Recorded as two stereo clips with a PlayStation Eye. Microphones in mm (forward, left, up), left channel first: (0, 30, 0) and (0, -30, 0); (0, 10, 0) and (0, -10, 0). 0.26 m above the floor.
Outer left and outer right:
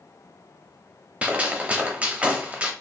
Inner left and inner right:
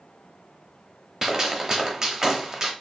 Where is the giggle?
No giggle in this recording.